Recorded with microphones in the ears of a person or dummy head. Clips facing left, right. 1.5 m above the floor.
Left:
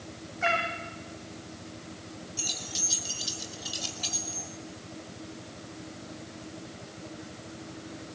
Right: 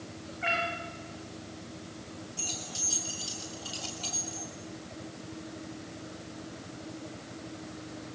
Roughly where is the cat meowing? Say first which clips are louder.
Left 4 dB; left.